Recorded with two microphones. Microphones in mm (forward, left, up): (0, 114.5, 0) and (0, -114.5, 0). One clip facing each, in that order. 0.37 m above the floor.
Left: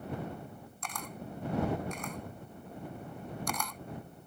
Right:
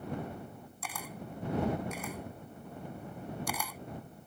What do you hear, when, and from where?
0.8 s a camera shutter: 5° right (ahead or behind)